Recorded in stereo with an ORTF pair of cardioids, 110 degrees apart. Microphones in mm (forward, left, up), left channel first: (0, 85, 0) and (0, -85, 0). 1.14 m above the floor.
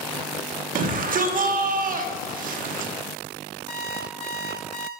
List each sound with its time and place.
0.8 s a shout: 55° right, 0.9 m
3.7 s an alarm clock: 40° left, 3.5 m